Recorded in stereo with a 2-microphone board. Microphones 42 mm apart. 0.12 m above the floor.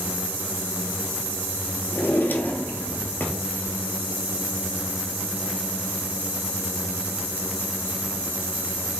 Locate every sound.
1.9 s a drawer: 50° left (ahead or behind), 0.8 m